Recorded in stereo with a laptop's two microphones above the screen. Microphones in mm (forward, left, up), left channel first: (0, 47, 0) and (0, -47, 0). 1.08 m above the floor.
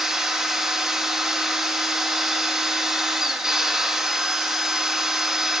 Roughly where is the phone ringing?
I don't hear a phone ringing.